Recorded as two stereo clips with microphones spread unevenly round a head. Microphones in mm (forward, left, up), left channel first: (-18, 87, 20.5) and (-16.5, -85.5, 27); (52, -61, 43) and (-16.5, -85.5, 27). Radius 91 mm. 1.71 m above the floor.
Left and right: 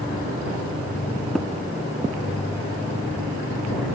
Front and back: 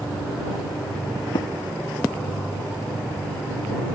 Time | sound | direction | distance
1.4 | tapping | straight ahead | ?